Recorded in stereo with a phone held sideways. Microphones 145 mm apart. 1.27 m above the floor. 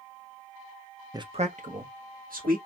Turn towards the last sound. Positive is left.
turn(degrees=-80)